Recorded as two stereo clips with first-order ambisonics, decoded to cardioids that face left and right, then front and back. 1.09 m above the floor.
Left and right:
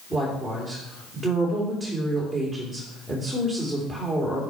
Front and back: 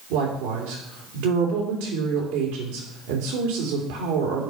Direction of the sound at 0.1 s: Straight behind.